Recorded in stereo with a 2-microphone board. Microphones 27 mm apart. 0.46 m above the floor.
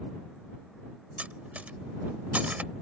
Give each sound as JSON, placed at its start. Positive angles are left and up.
{"t": 1.2, "sound": "cutlery clinking", "side_deg": -65}